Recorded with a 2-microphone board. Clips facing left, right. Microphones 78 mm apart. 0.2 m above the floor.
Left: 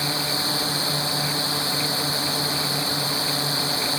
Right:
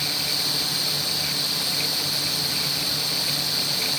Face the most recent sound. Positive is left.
turn(degrees=35)  # may be behind; listen again after turning